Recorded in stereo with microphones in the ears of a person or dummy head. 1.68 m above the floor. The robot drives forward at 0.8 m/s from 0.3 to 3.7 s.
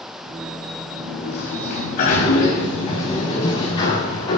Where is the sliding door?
60° left (ahead or behind), 2.5 m; by 4.4 s 35° left (ahead or behind), 3.5 m.